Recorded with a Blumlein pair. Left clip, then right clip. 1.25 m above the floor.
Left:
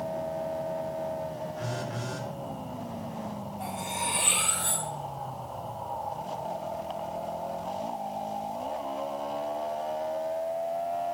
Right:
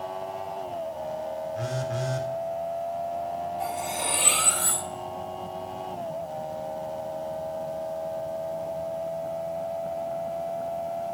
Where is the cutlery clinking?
55° right, 4 m.